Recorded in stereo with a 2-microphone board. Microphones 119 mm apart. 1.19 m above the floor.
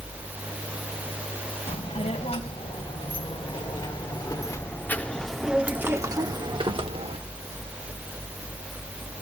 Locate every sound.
1.7 s a child speaking: 60° left (ahead or behind), 5 m; by 7.2 s 55° right (ahead or behind), 2.5 m